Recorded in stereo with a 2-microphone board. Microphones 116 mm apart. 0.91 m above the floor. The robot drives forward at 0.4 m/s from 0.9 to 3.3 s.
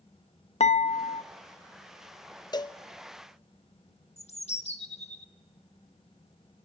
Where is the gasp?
I don't hear a gasp.